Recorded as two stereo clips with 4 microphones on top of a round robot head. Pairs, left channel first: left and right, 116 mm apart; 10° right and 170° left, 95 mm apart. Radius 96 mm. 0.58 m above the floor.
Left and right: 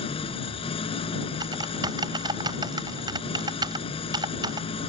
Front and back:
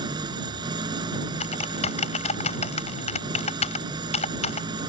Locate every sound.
0.0 s an engine running: 130° left
1.4 s typing on a keyboard: 25° right